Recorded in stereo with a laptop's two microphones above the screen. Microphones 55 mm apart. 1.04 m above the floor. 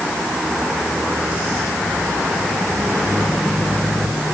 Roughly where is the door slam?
No door slam in this recording.